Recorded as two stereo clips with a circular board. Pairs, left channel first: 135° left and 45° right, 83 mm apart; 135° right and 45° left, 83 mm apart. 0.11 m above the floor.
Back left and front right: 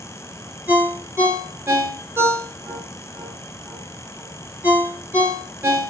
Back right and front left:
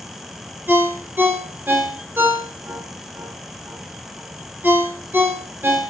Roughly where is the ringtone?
Ahead.